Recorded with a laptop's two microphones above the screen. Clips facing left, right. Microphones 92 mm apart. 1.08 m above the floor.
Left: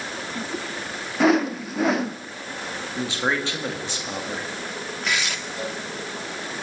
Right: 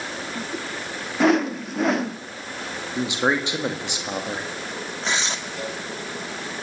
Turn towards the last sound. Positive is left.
turn(degrees=-30)  # may be behind; listen again after turning